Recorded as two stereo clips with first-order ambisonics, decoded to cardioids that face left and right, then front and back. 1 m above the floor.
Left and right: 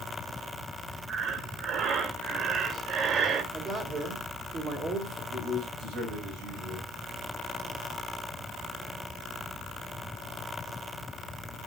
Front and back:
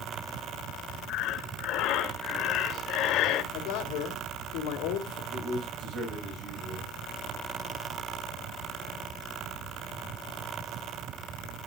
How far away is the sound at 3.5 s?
About 3 m.